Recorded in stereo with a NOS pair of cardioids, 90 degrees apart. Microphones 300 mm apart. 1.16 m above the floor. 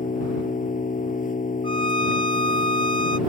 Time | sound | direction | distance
0.0 | an engine running | 30° left | ?
1.6 | a violin | 20° left | ?